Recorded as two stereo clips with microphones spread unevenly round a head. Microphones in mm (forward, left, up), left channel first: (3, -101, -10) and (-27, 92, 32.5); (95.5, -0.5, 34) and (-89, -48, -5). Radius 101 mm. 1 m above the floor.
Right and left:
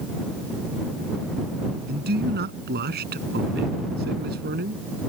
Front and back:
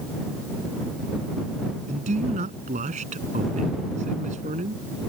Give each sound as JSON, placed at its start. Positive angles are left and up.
{"t": 1.9, "sound": "a man speaking", "azimuth_deg": 135}